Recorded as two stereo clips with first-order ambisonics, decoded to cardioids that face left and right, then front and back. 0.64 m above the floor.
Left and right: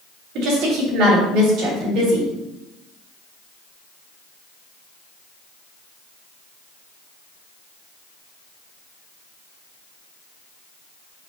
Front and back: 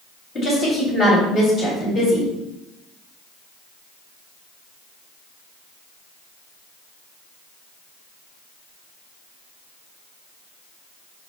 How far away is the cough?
I don't hear a cough.